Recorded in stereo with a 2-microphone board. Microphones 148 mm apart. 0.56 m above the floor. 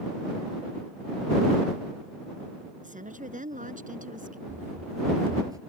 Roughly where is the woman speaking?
Right.